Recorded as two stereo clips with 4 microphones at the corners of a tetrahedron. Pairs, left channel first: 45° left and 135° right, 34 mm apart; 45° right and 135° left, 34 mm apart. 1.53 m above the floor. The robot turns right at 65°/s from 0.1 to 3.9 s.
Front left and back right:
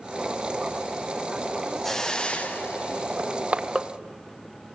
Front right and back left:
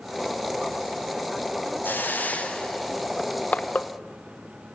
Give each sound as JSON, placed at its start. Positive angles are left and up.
{"t": 1.8, "sound": "a hiss", "azimuth_deg": -40, "distance_m": 1.5}
{"t": 3.2, "sound": "crushing", "azimuth_deg": -100, "distance_m": 1.1}